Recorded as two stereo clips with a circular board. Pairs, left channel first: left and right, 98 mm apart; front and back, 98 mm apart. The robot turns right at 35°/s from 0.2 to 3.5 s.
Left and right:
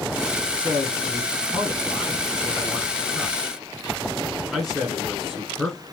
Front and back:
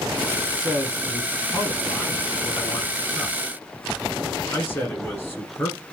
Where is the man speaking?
100° right, 1.1 m; by 5.8 s 5° left, 1.1 m.